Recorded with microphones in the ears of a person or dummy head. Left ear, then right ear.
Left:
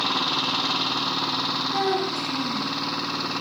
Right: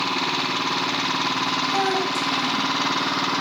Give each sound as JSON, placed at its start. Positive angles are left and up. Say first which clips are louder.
{"t": 1.7, "sound": "a child speaking", "louder": "right 2 dB", "side_deg": -55, "distance_m": 6.0}